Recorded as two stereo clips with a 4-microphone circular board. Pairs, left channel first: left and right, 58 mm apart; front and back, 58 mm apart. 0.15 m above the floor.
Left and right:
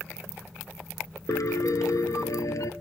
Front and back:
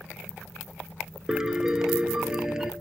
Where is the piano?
100° left, 0.9 m.